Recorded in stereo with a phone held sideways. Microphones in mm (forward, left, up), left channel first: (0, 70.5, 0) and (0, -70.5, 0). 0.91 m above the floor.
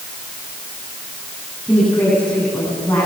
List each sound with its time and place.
1.7 s a woman speaking: 10° left (ahead or behind), 8.5 m